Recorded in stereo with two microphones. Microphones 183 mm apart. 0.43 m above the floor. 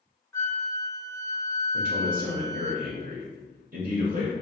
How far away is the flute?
About 0.7 m.